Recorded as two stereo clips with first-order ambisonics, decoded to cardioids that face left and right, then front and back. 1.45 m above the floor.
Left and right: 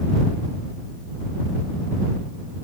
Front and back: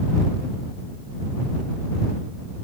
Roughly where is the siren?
I don't hear a siren.